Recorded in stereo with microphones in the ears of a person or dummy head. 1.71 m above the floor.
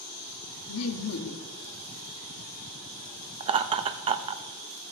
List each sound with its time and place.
0.7 s laughter: 80° left, 1.1 m
3.4 s laughter: 30° right (ahead or behind), 0.5 m